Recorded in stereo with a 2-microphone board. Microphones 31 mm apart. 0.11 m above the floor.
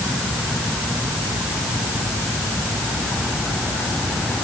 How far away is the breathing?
No breathing in this recording.